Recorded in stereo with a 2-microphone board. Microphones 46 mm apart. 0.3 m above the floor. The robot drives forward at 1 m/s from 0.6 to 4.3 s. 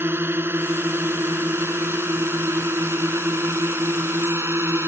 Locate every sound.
0.0 s a drone: 55° right (ahead or behind); by 4.9 s 65° right (ahead or behind)